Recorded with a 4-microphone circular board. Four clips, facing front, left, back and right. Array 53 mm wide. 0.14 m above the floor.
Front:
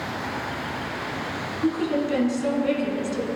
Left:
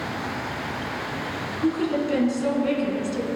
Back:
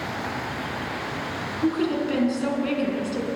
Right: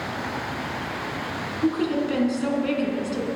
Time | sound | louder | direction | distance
1.6 | a woman speaking | even, even | 145° right | 1.2 m